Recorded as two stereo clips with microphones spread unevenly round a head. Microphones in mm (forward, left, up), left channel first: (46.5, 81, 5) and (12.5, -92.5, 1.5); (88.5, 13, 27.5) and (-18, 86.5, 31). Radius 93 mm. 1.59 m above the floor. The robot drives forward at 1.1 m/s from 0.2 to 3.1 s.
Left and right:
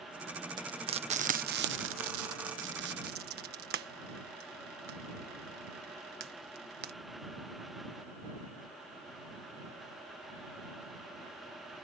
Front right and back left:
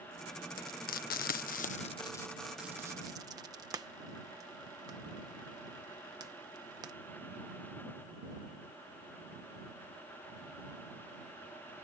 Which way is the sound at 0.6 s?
35° right.